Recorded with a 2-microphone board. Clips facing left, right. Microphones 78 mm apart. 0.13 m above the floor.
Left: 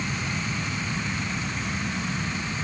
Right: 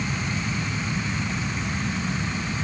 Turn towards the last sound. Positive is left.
No sound to turn to.